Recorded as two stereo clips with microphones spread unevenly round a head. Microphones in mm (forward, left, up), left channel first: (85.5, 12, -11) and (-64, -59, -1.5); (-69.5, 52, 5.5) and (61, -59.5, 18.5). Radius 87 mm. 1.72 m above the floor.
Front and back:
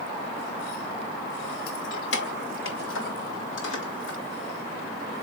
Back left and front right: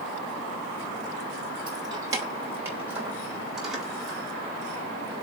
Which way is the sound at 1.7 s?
25° left.